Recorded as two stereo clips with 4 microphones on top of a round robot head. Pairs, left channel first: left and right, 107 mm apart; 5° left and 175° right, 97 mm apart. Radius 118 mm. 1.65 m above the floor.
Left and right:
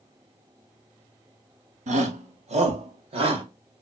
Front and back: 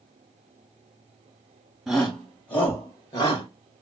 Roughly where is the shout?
Right.